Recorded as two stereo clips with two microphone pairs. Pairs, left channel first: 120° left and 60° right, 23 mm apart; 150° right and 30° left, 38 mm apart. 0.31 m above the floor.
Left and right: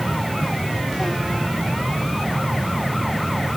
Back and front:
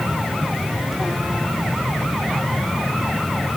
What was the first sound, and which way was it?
Only background noise.